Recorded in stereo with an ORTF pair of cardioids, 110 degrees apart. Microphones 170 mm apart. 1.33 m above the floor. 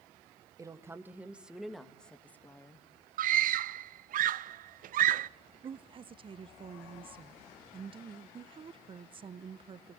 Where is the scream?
55° right, 0.7 m.